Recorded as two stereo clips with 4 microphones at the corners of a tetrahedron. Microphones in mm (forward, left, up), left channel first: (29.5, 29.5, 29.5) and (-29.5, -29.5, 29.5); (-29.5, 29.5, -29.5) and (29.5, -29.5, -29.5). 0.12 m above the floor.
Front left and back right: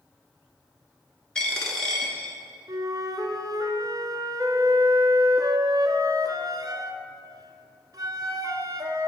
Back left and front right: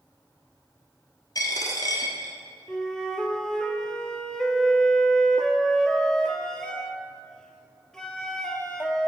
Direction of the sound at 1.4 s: 125° left.